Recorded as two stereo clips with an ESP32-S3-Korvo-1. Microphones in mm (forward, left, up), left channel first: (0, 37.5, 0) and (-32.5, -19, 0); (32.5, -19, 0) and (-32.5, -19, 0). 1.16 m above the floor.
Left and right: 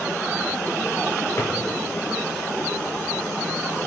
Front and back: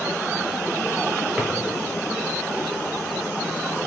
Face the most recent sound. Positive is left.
turn(degrees=100)